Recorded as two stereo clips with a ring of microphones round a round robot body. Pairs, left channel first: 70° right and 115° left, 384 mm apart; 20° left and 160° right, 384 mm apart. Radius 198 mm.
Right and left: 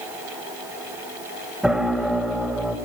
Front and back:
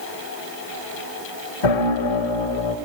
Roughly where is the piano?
Ahead left.